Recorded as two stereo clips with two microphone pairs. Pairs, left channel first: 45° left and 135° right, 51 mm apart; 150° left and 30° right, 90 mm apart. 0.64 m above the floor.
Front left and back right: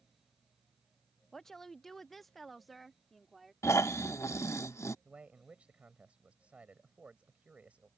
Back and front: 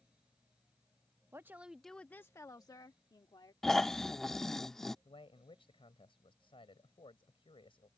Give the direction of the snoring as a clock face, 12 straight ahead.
10 o'clock.